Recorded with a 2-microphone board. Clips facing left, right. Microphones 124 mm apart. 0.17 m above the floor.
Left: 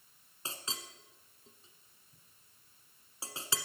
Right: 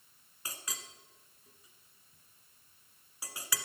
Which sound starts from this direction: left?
A clink, at 0.5 s.